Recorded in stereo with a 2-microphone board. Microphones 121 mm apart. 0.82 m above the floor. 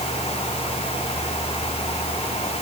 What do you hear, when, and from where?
Only background noise.